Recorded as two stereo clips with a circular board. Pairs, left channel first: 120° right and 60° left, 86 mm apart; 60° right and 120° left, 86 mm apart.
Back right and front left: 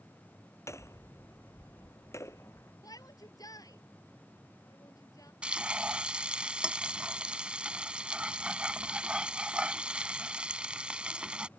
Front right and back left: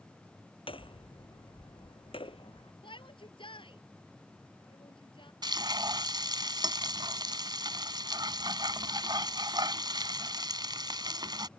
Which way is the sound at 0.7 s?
65° right.